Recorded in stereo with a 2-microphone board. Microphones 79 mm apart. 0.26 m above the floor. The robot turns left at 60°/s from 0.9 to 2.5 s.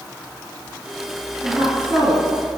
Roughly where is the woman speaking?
Behind right.